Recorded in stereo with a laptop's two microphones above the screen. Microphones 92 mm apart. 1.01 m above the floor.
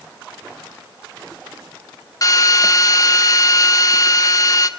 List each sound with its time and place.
2.2 s a drill: 40° left (ahead or behind), 1.2 m